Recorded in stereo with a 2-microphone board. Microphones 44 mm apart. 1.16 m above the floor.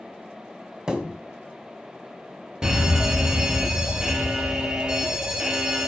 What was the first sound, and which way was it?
A thud, 15° right (ahead or behind).